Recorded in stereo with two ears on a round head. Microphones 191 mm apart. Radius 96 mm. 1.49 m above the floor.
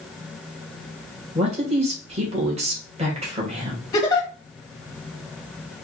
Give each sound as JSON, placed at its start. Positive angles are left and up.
{"t": 1.4, "sound": "a man speaking", "side_deg": -30, "distance_m": 2.5}
{"t": 3.9, "sound": "a giggle", "side_deg": 20, "distance_m": 1.5}